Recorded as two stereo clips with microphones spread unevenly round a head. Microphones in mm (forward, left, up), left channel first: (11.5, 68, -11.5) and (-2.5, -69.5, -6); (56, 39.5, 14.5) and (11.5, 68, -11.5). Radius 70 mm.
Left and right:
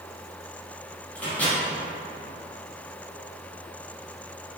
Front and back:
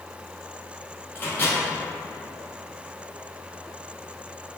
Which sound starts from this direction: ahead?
A microwave, at 1.1 s.